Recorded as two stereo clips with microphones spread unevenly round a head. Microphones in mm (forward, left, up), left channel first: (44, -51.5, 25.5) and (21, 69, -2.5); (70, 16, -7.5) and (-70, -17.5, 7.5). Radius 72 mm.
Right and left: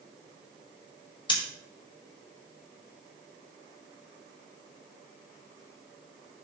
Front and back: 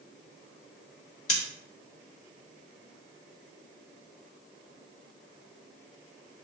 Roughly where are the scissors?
Ahead right.